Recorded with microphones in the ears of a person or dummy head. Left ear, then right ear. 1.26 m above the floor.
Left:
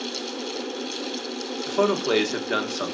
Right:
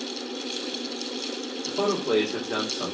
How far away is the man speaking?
About 1.1 m.